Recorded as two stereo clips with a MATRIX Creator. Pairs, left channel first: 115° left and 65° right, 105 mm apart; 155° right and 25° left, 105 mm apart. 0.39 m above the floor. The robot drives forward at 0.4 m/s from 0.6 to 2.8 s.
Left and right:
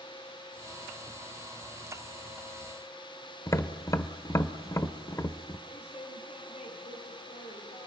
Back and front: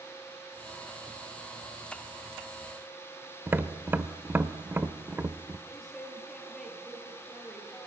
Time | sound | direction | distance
3.5 | tapping | 80° left | 1.2 m
5.7 | a woman speaking | 115° left | 10 m